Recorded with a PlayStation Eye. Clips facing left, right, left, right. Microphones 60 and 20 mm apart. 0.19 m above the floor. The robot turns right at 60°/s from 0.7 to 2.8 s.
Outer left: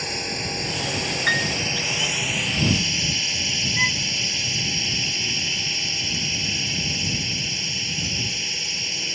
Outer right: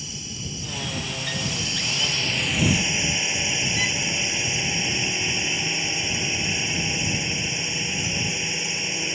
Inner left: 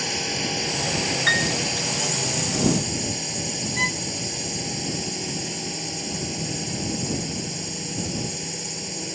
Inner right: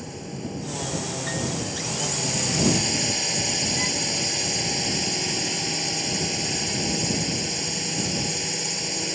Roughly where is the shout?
I don't hear a shout.